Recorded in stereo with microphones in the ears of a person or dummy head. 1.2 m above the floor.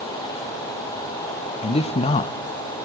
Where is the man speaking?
30° left (ahead or behind), 0.7 m.